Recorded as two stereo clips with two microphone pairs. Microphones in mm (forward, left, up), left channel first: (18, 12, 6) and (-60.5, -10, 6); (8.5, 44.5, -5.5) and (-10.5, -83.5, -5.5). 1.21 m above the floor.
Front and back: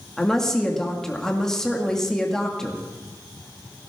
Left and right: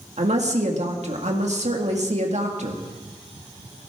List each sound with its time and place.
0.2 s a woman speaking: 70° right, 2 m